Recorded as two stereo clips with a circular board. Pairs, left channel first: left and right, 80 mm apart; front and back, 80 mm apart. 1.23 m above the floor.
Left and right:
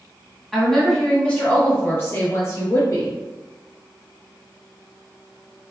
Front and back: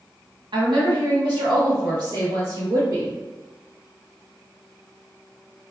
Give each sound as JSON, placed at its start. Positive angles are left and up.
{"t": 0.5, "sound": "a woman speaking", "azimuth_deg": 180, "distance_m": 1.4}